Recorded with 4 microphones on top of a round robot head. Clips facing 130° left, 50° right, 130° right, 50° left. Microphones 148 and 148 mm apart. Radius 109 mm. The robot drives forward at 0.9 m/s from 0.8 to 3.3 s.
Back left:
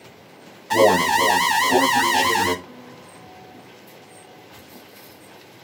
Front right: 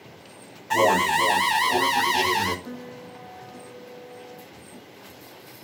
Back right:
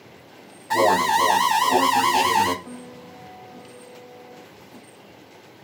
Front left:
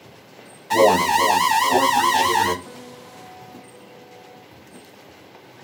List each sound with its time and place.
0.7 s an alarm: 110° left, 1.6 m; by 2.5 s 155° left, 2.5 m
2.6 s a piano: 45° right, 1.7 m; by 4.5 s 65° right, 1.4 m